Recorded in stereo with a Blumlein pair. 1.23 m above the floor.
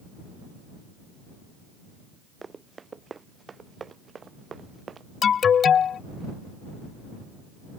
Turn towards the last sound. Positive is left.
turn(degrees=25)